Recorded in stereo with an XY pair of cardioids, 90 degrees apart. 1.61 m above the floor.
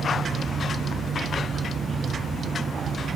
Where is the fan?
55° right, 2 m.